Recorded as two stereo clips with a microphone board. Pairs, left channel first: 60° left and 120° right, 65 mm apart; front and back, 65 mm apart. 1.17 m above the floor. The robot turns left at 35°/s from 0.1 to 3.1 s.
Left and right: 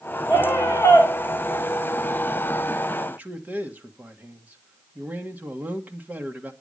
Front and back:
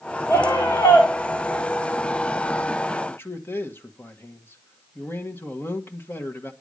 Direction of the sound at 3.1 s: 55° right.